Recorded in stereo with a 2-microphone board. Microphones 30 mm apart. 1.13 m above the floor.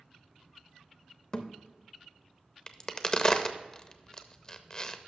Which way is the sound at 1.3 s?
30° left (ahead or behind).